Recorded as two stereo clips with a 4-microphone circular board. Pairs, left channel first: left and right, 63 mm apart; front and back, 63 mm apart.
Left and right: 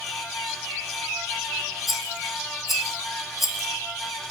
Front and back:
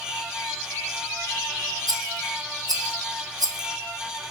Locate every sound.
1.9 s a rattle: straight behind, 0.7 m